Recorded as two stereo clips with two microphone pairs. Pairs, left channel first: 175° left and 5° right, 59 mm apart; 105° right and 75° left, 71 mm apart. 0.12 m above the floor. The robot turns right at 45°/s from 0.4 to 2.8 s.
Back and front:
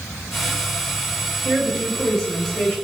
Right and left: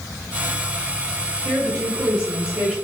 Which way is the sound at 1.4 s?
70° left.